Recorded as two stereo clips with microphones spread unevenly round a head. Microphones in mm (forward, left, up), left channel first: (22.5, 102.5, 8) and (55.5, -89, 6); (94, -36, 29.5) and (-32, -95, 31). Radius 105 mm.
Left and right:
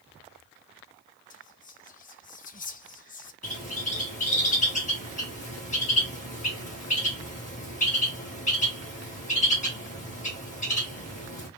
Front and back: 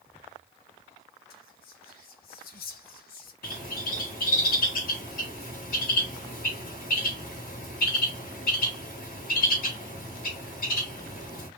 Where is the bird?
50° left, 1.9 m.